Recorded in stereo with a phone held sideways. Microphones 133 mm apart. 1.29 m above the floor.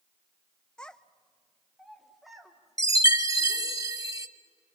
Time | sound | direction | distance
0.8 | a child speaking | 5° left (ahead or behind) | 0.6 m
2.8 | a chime | 25° right (ahead or behind) | 0.8 m